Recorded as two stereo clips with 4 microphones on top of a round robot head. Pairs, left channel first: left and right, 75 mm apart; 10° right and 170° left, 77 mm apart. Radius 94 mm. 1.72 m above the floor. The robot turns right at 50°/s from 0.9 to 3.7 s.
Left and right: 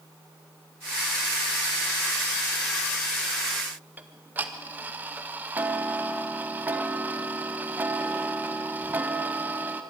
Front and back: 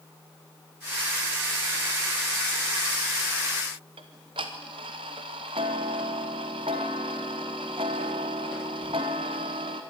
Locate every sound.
4.0 s ticking: 155° right, 0.8 m